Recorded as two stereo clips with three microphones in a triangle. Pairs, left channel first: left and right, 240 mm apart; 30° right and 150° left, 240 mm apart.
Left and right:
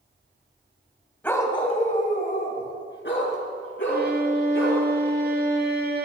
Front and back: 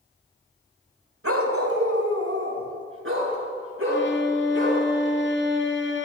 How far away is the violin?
About 1.2 m.